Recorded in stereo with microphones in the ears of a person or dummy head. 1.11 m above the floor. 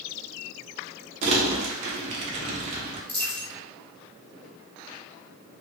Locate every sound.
1.2 s crumpling: 35° right (ahead or behind), 0.7 m
3.1 s a dropped coin: 10° left (ahead or behind), 1.5 m